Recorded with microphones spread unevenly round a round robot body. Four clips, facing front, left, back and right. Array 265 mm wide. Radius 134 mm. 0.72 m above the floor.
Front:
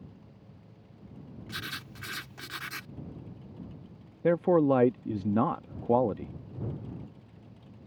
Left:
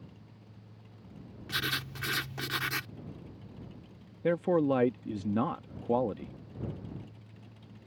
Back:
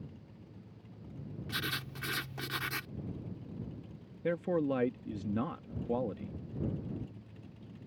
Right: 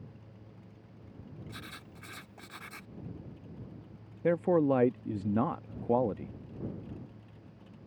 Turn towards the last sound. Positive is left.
turn(degrees=0)